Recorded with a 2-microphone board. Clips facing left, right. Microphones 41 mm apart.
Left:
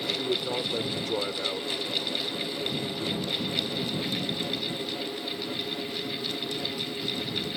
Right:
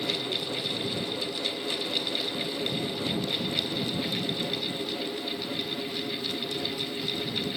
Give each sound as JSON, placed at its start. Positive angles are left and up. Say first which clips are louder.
{"t": 0.1, "sound": "a man speaking", "louder": "left 3 dB", "side_deg": 80}